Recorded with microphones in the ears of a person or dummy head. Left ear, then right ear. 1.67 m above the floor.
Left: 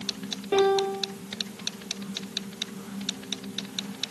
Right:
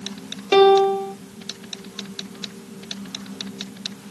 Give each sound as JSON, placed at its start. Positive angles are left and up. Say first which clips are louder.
{"t": 0.5, "sound": "a piano", "louder": "right 9 dB", "side_deg": -35, "distance_m": 0.6}